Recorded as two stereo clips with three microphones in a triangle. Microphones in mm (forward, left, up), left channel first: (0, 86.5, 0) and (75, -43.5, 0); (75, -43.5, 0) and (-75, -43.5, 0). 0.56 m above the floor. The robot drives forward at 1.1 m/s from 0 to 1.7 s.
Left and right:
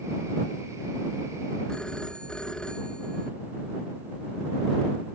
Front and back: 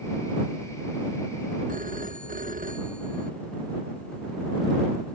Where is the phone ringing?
155° right.